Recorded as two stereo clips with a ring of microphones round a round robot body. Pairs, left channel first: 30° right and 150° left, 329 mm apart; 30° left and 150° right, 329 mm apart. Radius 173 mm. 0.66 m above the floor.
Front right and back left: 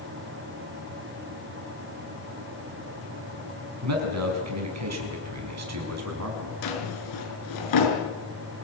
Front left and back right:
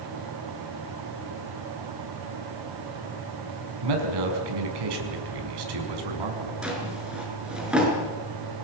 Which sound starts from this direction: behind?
A man speaking, at 3.8 s.